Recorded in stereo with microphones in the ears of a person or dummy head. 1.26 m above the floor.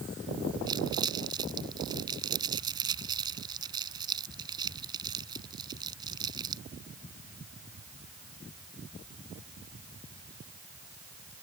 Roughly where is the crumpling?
Right.